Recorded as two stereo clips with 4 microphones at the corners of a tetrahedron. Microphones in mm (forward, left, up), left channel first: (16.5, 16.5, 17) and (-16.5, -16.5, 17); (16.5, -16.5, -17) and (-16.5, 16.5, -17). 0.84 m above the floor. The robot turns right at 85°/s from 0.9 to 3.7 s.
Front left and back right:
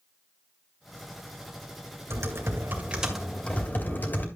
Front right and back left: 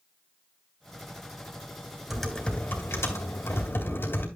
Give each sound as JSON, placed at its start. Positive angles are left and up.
{"t": 2.1, "sound": "typing on a keyboard", "azimuth_deg": -140, "distance_m": 3.0}